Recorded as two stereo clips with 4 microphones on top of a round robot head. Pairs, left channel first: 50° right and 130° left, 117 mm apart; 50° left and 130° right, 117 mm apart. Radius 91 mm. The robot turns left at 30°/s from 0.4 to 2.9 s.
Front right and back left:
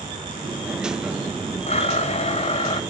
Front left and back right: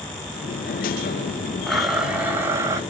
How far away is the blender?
About 1.2 m.